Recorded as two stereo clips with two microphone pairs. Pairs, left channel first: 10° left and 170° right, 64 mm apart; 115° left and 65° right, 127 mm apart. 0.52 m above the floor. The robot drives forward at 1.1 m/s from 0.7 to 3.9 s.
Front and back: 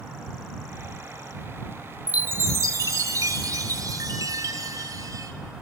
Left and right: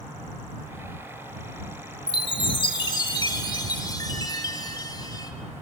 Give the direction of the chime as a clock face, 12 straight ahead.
8 o'clock.